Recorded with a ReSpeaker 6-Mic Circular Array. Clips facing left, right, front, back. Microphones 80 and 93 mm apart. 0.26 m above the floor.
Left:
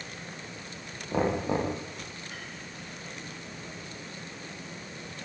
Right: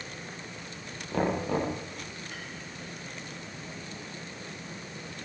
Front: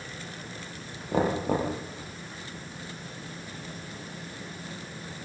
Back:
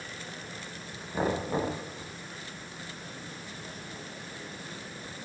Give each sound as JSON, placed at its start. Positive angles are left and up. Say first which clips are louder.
{"t": 1.1, "sound": "knocking", "louder": "left 1 dB, front 4 dB", "azimuth_deg": 15, "distance_m": 8.0}